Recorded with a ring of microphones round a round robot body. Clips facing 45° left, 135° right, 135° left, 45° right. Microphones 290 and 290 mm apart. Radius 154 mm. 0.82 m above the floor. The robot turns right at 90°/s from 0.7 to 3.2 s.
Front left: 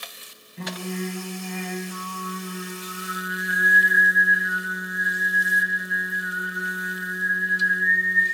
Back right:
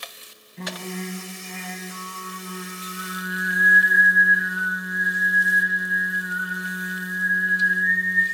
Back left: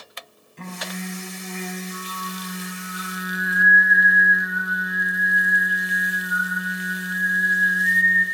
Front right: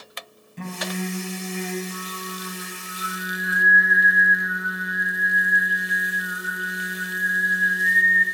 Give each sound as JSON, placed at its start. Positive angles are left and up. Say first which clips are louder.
{"t": 0.6, "sound": "singing", "louder": "front left 2 dB, front right 4 dB", "azimuth_deg": -45, "distance_m": 2.5}